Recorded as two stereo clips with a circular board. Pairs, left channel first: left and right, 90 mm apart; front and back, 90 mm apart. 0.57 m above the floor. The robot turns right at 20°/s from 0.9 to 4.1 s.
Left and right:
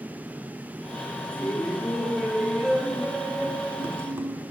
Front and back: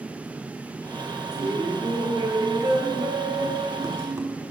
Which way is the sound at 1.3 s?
160° left.